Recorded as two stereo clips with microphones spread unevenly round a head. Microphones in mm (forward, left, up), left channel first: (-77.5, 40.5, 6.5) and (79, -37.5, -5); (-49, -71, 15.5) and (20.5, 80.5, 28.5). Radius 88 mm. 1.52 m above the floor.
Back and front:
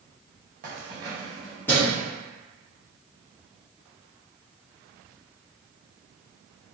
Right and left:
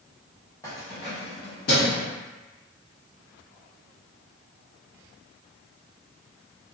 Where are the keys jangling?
40° right, 0.8 m; by 2.0 s 140° right, 1.3 m.